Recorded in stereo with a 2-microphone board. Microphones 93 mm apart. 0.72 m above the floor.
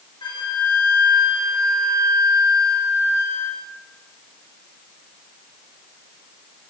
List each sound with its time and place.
0.2 s a flute: 60° left (ahead or behind), 1.8 m